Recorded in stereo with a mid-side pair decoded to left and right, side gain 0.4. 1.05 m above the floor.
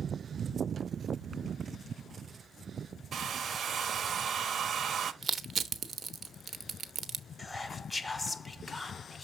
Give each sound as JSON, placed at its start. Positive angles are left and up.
{"t": 3.1, "sound": "a hair dryer", "azimuth_deg": -50, "distance_m": 1.1}
{"t": 5.2, "sound": "crushing", "azimuth_deg": -45, "distance_m": 1.0}
{"t": 7.4, "sound": "whispering", "azimuth_deg": 20, "distance_m": 1.1}